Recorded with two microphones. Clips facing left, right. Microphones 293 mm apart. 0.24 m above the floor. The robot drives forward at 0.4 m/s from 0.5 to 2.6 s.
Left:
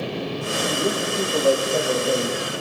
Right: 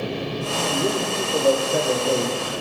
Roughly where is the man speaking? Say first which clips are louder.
Right 1 dB; centre.